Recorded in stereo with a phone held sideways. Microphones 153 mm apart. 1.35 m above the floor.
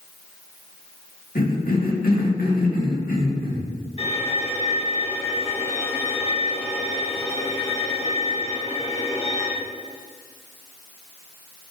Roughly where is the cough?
Left.